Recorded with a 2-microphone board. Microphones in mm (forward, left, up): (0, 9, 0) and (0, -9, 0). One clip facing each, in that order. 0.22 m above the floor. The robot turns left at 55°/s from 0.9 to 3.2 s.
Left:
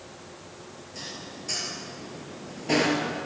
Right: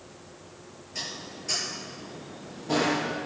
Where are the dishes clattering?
35° right (ahead or behind), 3 m; by 3.2 s 75° left (ahead or behind), 3 m.